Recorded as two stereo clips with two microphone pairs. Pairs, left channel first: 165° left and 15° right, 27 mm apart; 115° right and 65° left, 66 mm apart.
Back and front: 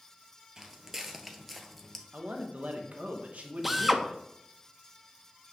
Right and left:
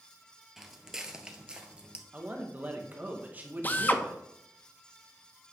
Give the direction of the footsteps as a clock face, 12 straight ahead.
1 o'clock.